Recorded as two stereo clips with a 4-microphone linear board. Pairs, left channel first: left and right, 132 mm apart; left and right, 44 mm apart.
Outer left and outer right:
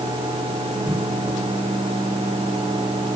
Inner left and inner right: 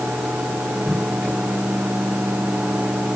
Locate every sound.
Only background noise.